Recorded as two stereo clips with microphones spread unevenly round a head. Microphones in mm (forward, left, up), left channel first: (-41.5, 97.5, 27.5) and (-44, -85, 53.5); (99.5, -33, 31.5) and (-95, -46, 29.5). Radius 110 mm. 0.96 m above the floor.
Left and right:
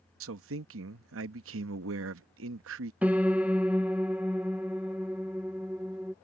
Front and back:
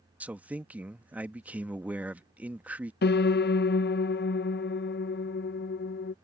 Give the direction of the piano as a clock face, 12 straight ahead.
12 o'clock.